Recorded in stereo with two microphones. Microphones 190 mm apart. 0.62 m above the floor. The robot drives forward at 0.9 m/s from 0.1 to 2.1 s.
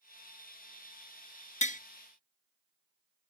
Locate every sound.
1.6 s tapping: 40° left (ahead or behind), 0.5 m; by 1.8 s 45° left (ahead or behind), 0.5 m